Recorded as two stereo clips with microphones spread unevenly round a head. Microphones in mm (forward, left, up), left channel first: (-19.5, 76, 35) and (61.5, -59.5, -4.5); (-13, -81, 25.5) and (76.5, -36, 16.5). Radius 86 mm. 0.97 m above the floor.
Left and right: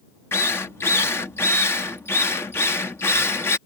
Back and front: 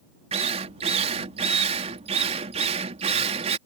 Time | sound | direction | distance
0.3 | a drill | 40° left | ?